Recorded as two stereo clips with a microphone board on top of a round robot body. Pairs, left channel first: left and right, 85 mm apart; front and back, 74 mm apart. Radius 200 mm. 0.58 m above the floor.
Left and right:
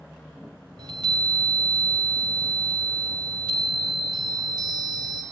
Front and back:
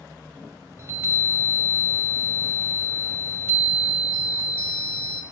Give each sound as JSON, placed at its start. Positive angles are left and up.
{"t": 0.8, "sound": "a chime", "azimuth_deg": -125, "distance_m": 0.5}